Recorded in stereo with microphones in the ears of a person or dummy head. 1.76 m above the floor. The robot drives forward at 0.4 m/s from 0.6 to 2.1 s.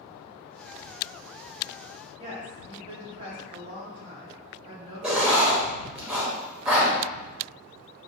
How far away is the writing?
About 0.9 m.